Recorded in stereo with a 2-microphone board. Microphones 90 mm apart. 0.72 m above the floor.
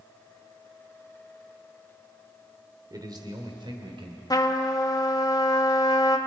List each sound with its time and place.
2.9 s a man speaking: 45° right (ahead or behind), 2.5 m; by 4.2 s 70° right (ahead or behind), 3 m
4.3 s a trumpet: 40° left (ahead or behind), 1.0 m